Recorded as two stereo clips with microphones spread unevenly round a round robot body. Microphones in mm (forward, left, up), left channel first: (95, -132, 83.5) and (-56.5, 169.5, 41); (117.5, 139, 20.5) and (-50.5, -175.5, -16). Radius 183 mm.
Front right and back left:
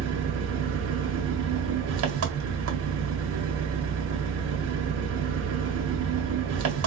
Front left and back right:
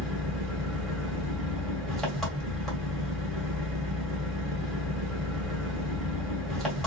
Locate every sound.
0.0 s an engine running: 155° left, 1.8 m